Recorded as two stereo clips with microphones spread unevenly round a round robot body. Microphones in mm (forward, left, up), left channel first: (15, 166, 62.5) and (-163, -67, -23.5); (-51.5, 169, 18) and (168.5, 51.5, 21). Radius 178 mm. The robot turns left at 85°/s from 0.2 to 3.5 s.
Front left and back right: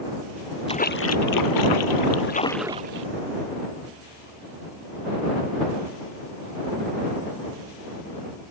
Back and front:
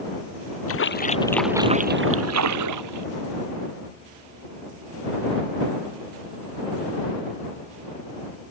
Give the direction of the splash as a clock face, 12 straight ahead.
8 o'clock.